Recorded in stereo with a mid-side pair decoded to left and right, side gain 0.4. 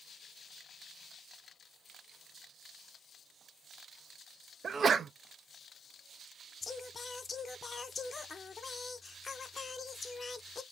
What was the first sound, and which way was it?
A sneeze, 50° right.